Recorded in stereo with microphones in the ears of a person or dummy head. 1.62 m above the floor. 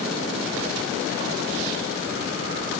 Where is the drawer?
I don't hear a drawer.